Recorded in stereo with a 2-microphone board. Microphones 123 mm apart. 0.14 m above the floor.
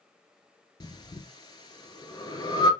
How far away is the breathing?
About 0.8 m.